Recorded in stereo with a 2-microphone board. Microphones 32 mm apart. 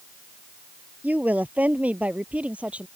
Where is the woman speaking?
50° right (ahead or behind); by 2.9 s 40° right (ahead or behind).